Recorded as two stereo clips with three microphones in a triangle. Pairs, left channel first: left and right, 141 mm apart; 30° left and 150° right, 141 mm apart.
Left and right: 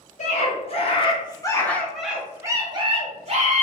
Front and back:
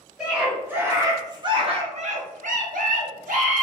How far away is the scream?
About 1.3 m.